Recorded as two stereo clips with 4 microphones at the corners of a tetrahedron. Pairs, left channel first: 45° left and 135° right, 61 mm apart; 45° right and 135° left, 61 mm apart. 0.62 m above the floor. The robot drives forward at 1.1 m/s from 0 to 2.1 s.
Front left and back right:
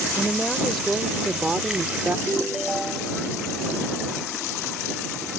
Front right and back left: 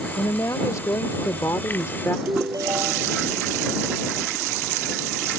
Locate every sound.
0.2 s a woman speaking: 35° right; by 2.2 s 85° right
2.3 s a ringtone: 140° left